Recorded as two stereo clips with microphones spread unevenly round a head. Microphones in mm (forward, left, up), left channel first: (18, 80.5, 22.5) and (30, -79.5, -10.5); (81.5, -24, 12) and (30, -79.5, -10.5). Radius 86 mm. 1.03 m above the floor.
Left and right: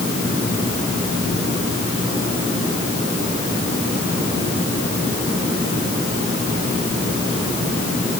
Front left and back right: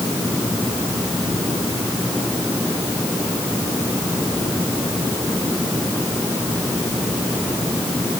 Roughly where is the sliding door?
I don't hear a sliding door.